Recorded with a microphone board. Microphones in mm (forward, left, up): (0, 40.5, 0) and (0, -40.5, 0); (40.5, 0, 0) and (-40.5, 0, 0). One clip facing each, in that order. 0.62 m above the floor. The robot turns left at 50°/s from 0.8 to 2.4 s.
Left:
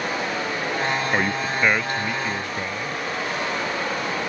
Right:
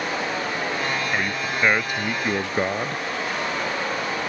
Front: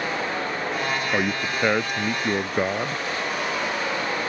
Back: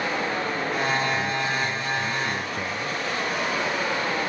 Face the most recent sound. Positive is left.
turn(degrees=-40)